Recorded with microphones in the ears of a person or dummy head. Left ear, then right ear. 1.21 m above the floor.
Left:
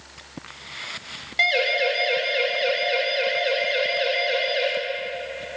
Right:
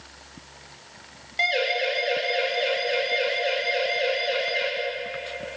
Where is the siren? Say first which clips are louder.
Left 3 dB; 10° left (ahead or behind), 5 m; by 4.7 s 5° left (ahead or behind), 7 m.